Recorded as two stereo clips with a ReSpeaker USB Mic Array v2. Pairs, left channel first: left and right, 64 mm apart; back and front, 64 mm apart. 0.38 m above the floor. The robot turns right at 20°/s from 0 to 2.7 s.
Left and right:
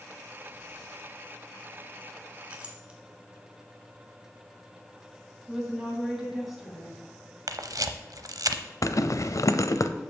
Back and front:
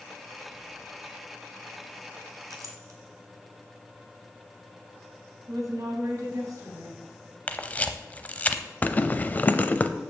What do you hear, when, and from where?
2.5 s a clink: 20° right, 1.7 m; by 3.0 s 15° right, 1.7 m
5.5 s a woman speaking: 5° right, 3 m
7.5 s a camera shutter: 115° right, 0.7 m
8.8 s a zipper: 120° left, 0.6 m